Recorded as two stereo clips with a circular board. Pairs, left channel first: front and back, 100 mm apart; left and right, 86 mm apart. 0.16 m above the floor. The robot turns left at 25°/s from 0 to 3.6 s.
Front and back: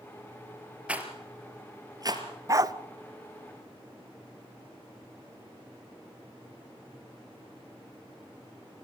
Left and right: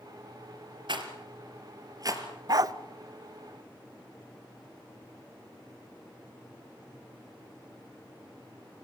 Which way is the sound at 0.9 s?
105° right.